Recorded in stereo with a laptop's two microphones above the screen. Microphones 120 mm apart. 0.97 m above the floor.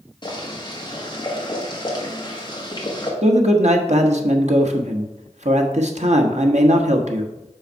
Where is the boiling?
35° left (ahead or behind), 1.2 m.